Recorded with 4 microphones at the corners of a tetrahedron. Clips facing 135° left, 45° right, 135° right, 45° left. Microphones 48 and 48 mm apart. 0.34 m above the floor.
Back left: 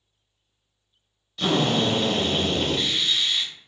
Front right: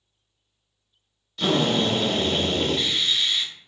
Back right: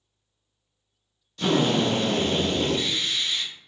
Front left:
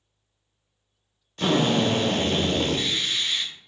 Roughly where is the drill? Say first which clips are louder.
Even, even; ahead left.